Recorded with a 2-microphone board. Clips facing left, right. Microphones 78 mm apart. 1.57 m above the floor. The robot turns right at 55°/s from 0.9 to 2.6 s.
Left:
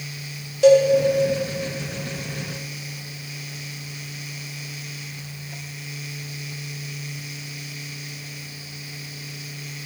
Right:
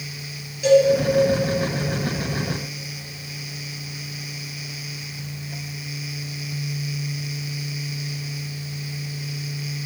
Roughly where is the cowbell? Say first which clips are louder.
Left 2 dB; left.